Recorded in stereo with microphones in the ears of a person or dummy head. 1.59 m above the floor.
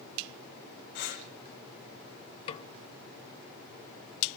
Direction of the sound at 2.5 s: 30° left (ahead or behind).